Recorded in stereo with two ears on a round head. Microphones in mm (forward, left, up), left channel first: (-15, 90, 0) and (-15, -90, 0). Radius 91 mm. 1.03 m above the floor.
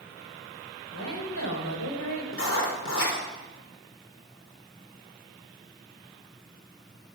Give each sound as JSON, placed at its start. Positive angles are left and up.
{"t": 0.9, "sound": "a woman speaking", "side_deg": 80, "distance_m": 4.5}
{"t": 2.3, "sound": "writing", "side_deg": 65, "distance_m": 3.5}